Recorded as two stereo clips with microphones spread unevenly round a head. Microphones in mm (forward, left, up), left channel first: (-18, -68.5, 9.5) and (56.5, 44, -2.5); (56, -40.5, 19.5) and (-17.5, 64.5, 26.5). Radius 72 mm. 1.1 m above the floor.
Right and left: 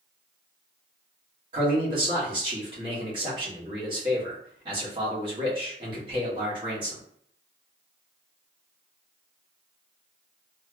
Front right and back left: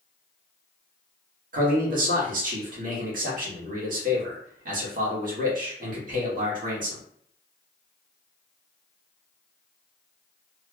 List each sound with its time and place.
1.5 s a man speaking: 115° left, 1.6 m